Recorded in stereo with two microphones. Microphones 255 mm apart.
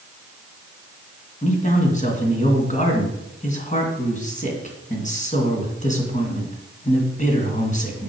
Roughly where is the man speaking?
Left.